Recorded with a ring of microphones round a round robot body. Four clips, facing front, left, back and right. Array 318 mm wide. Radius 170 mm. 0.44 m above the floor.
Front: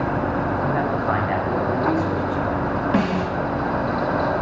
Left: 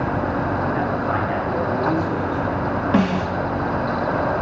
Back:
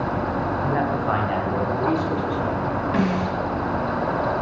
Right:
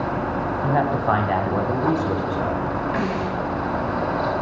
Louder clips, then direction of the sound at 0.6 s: Right 1 dB, front 1 dB; 95° right.